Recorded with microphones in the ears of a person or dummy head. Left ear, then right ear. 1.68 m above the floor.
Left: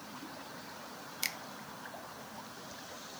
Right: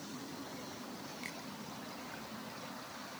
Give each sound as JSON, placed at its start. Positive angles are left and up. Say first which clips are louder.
{"t": 1.2, "sound": "a finger snap", "louder": "left 10 dB", "side_deg": 55, "distance_m": 0.9}